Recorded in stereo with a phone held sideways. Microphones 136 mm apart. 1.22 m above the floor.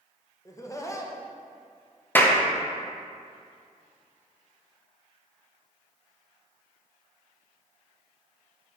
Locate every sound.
0.5 s laughter: 25° left (ahead or behind), 0.8 m
2.1 s a clap: 15° left (ahead or behind), 0.7 m